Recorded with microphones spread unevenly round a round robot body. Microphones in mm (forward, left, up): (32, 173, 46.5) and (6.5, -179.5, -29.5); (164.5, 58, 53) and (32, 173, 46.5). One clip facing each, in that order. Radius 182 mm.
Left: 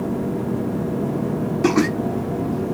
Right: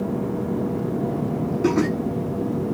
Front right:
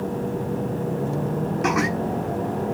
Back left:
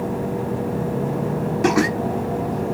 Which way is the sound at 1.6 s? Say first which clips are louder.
Left 2 dB, back left 6 dB; 155° left.